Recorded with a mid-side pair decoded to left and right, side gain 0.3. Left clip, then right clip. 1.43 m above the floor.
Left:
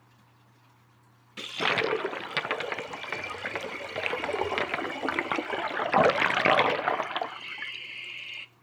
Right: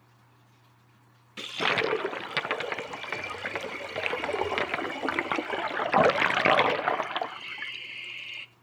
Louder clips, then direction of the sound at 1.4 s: Even; straight ahead.